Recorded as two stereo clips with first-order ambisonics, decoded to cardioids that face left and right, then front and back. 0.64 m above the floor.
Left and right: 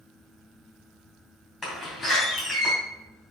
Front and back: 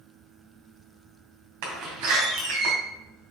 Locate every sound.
1.6 s a door slam: 175° left, 2.5 m